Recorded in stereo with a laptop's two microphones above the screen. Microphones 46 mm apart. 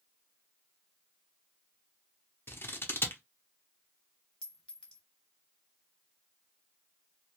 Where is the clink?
20° left (ahead or behind), 0.6 m.